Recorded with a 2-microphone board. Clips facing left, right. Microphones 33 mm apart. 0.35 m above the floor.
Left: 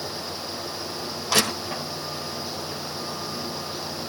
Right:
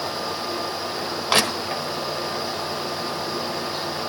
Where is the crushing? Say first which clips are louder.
Right 3 dB; 35° right (ahead or behind), 1.4 m.